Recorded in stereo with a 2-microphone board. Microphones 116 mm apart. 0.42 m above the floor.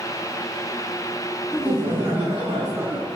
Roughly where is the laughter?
Right.